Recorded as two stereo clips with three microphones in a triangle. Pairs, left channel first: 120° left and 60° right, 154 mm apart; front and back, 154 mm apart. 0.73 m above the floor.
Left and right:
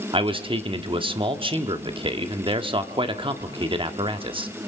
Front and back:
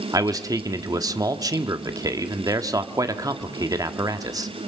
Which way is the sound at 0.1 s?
115° right.